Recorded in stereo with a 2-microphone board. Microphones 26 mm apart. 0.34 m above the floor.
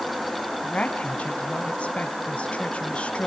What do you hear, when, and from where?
0.6 s a woman speaking: 50° left (ahead or behind), 3 m